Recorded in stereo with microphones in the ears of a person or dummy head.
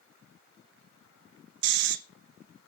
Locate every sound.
1.6 s snoring: 60° right (ahead or behind), 1.1 m